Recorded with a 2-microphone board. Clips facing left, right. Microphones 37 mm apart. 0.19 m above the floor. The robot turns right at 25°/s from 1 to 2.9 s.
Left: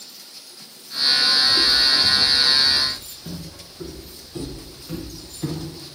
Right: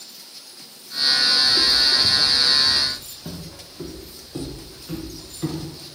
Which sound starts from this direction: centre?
Footsteps, at 1.4 s.